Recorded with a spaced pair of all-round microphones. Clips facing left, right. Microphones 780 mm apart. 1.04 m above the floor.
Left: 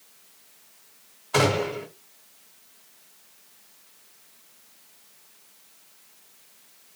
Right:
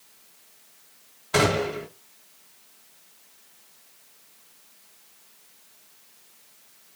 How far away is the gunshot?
About 1.1 m.